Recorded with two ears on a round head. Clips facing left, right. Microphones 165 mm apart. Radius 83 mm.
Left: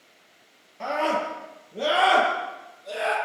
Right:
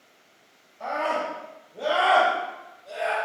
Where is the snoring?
No snoring in this recording.